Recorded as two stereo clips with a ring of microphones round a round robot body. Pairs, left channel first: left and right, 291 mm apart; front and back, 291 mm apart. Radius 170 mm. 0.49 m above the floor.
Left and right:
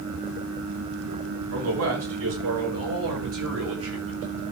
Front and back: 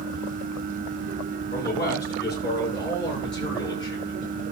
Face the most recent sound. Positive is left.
turn(degrees=-50)